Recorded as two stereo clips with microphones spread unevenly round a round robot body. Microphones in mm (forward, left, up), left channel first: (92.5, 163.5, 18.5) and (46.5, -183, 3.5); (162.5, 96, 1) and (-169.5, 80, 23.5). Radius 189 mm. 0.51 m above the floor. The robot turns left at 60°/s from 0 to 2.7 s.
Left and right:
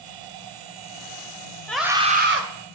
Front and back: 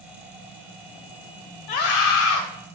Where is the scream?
5° right, 1.7 m; by 2.4 s 50° right, 1.7 m.